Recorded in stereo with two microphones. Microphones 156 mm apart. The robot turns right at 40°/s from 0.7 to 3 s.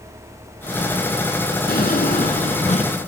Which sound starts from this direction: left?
A drawer, at 1.7 s.